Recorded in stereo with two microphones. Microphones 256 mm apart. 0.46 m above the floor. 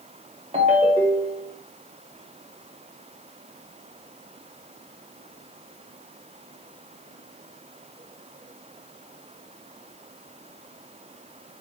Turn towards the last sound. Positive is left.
turn(degrees=-25)  # may be behind; listen again after turning